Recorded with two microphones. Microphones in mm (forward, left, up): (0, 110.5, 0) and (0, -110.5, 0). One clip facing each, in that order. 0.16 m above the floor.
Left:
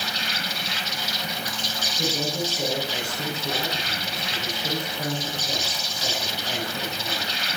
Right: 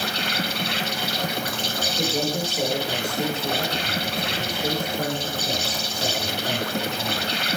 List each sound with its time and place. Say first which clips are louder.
0.0 s an insect: right 6 dB; 65° right (ahead or behind), 0.9 m
2.0 s a man speaking: right 2 dB; 60° right (ahead or behind), 5.5 m